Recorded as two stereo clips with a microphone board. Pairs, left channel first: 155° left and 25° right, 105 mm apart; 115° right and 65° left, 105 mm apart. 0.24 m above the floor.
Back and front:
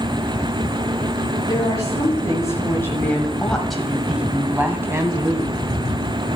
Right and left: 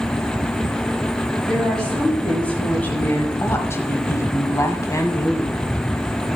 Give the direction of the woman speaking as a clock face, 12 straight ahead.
7 o'clock.